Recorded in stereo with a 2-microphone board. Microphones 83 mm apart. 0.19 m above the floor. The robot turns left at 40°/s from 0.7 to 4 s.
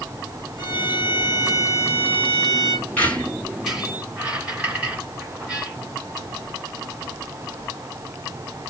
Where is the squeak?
20° left (ahead or behind), 1.4 m; by 5.8 s 15° right (ahead or behind), 1.4 m.